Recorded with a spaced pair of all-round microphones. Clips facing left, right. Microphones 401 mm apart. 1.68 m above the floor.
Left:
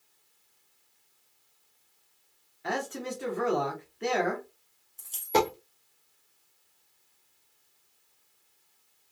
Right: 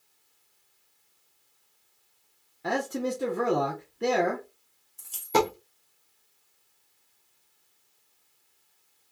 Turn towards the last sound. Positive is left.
turn(degrees=-20)  # may be behind; listen again after turning